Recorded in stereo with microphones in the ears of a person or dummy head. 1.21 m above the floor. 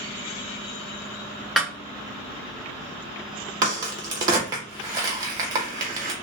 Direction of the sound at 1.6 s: Centre (ahead or behind).